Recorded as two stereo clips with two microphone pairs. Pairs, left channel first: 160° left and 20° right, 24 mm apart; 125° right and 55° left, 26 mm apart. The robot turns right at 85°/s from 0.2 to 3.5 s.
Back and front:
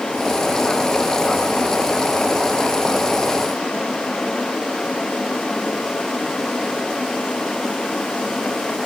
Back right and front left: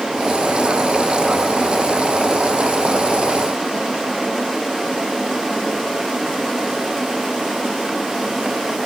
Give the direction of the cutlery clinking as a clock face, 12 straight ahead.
No cutlery clinking in this recording.